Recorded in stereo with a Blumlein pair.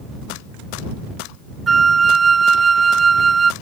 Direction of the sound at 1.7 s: 15° right.